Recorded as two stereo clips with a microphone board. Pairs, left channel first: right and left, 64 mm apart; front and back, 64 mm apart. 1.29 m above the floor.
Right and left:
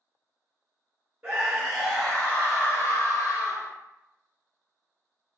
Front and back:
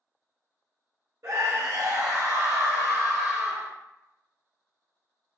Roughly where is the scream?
Behind left.